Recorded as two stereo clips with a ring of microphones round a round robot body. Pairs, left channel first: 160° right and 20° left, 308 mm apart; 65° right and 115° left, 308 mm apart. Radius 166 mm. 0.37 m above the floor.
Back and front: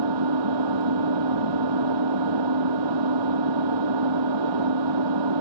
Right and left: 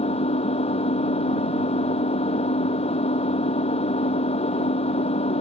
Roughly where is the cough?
No cough in this recording.